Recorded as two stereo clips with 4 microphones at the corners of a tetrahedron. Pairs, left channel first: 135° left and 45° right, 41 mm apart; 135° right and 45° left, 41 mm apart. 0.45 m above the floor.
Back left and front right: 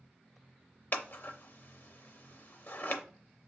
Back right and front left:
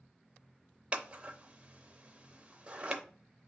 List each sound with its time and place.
0.9 s scissors: 105° left, 0.6 m